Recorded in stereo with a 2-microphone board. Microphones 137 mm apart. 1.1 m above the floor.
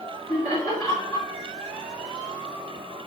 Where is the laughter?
35° left (ahead or behind), 3.5 m.